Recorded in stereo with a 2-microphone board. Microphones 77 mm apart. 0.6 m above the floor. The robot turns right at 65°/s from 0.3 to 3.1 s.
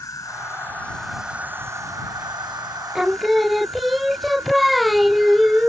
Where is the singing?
10° right (ahead or behind); by 5.7 s centre (ahead or behind).